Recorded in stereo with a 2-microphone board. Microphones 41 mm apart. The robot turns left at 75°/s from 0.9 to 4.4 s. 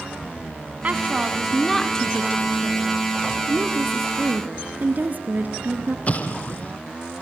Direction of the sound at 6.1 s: 40° left (ahead or behind).